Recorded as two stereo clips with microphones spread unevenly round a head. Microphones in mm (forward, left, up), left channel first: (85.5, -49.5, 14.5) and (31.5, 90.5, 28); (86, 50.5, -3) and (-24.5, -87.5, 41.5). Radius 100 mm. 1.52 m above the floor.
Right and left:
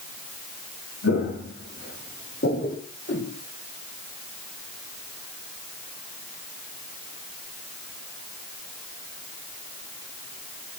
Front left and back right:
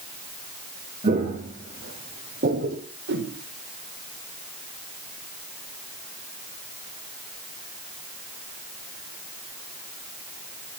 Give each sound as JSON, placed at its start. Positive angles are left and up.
{"t": 1.0, "sound": "footsteps", "azimuth_deg": -90, "distance_m": 4.5}
{"t": 3.1, "sound": "a whoosh", "azimuth_deg": -110, "distance_m": 4.5}